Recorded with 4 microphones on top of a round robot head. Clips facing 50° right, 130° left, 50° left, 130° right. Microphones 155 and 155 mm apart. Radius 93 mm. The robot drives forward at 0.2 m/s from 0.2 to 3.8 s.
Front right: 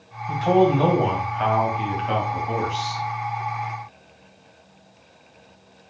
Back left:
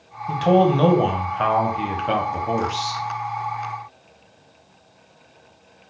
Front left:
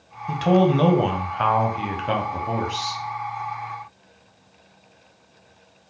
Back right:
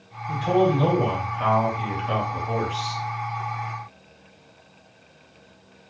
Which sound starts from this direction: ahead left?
A man speaking, at 0.3 s.